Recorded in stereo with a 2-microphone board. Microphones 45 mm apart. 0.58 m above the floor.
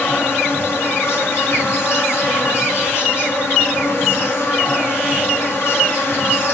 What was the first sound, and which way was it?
An insect, 85° left.